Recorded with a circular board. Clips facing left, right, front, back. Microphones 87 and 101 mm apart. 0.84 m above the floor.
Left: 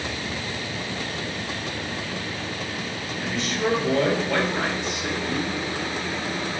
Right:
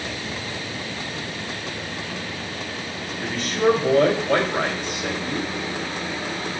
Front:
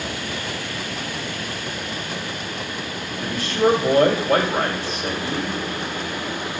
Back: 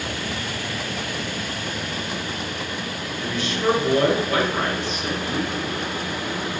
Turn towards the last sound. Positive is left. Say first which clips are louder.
# right 5 dB, front 4 dB
turn(degrees=-45)